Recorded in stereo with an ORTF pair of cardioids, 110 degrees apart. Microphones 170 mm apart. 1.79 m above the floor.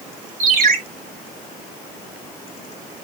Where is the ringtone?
60° right, 3.5 m.